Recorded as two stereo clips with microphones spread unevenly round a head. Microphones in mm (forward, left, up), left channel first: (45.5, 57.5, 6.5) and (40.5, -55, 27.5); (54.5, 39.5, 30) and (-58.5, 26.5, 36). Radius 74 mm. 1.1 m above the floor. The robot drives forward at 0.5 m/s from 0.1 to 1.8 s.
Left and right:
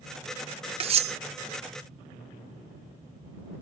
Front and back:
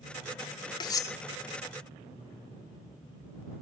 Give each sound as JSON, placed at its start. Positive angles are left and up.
{"t": 0.8, "sound": "cutlery clinking", "azimuth_deg": -55}